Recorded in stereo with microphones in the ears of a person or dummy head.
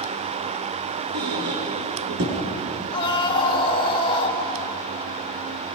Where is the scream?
30° left (ahead or behind), 3 m.